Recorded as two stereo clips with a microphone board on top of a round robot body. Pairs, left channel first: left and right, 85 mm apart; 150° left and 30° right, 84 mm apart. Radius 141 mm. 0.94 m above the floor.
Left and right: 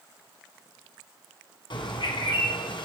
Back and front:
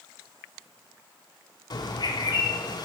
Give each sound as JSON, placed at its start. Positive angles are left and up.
{"t": 1.7, "sound": "a bird", "azimuth_deg": 115, "distance_m": 1.3}